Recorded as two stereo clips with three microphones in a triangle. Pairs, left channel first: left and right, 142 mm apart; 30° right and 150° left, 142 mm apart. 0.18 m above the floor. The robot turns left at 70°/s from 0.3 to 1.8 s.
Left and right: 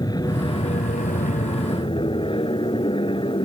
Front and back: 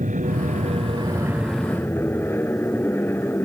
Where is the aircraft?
150° left; by 3.5 s 45° left.